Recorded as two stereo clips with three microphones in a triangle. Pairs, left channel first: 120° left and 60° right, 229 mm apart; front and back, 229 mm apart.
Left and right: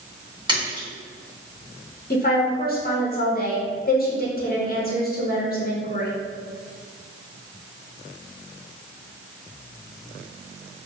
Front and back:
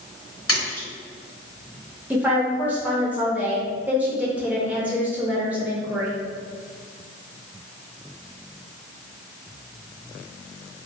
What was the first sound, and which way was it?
A splash, 10° left.